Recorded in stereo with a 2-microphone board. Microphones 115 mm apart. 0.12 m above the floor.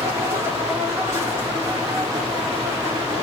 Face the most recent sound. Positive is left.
turn(degrees=-25)  # may be behind; listen again after turning